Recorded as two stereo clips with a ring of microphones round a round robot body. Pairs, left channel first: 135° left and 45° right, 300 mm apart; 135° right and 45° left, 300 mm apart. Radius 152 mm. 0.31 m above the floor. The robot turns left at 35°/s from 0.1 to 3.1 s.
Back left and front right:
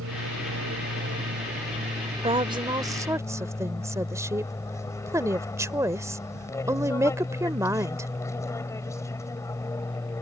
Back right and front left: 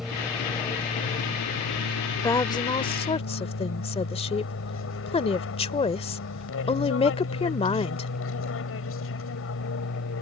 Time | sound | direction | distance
0.0 | an aircraft | 45° right | ?
2.2 | a woman speaking | 80° right | ?